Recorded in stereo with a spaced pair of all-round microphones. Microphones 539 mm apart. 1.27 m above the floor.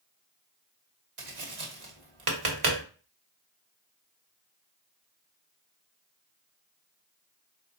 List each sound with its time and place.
1.2 s tapping: 65° right (ahead or behind), 1.0 m